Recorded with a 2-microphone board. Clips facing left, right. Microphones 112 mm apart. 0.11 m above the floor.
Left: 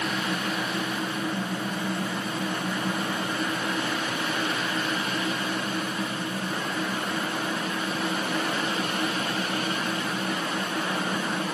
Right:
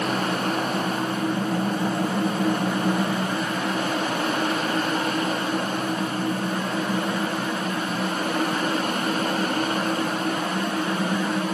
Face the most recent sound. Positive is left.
No sound to turn to.